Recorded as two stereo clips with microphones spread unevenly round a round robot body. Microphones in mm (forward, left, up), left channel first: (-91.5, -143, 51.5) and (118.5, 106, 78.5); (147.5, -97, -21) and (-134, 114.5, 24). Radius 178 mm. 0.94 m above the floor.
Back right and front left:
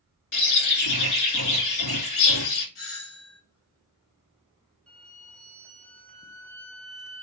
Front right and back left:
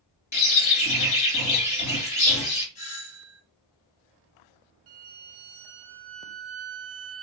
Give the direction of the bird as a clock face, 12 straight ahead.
4 o'clock.